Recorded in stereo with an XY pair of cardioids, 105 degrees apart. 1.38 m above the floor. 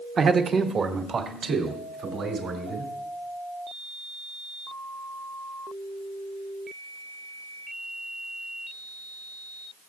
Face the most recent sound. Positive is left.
turn(degrees=-55)